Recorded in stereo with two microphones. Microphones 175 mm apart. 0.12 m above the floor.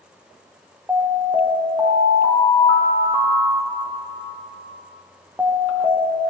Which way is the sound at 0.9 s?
10° right (ahead or behind).